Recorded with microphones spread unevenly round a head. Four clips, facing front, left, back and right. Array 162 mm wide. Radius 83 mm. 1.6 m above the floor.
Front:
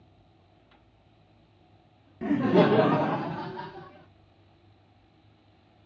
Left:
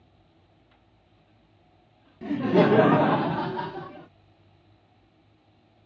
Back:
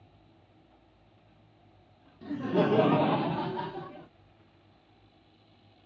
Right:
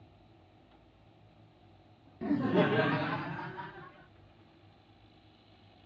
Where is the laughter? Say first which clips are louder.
Left 7 dB, front 6 dB; 5° right; by 4.1 s 115° left.